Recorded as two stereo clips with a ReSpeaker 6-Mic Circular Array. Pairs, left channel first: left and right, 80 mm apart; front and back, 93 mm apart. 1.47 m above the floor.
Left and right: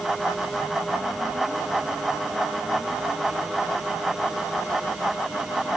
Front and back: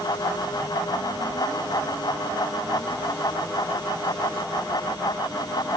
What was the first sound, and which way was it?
Only background noise.